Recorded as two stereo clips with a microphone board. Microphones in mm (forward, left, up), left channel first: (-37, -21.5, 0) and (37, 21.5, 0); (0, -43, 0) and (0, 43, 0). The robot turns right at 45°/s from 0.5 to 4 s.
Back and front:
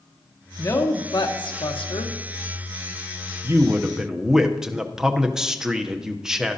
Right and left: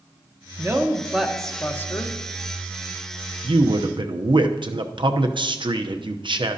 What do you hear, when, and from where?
0.6 s a woman speaking: 145° left, 1.0 m; by 2.1 s 145° right, 1.0 m
3.4 s a man speaking: 90° left, 0.7 m; by 6.6 s 115° left, 0.7 m